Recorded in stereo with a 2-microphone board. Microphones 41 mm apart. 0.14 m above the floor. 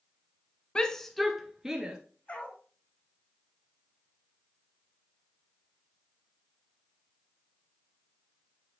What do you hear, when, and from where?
0.8 s a shout: 20° left (ahead or behind), 1.1 m; by 2.0 s 15° right (ahead or behind), 2.0 m
2.3 s a dog barking: 35° left (ahead or behind), 2.5 m